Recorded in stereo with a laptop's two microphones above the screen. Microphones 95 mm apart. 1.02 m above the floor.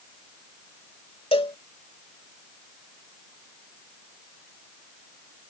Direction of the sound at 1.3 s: 75° left (ahead or behind).